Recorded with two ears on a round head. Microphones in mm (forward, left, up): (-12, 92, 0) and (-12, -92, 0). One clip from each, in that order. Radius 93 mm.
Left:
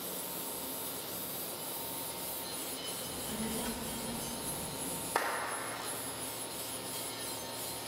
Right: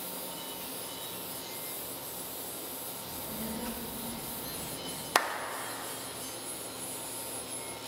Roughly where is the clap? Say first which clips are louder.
Right 6 dB; right.